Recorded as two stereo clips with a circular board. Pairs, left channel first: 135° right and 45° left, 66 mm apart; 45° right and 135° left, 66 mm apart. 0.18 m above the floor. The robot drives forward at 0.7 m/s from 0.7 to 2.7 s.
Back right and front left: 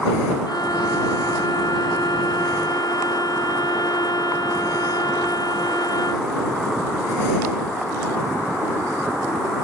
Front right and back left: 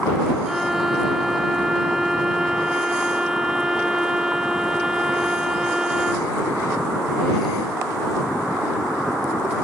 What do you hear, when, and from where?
0.5 s a violin: 140° right; by 6.3 s 145° right